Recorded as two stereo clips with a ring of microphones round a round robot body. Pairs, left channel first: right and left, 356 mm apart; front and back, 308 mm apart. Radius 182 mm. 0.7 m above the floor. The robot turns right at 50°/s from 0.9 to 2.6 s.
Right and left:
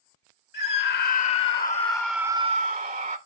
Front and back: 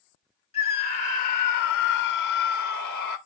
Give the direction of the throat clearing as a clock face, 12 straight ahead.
I don't hear throat clearing.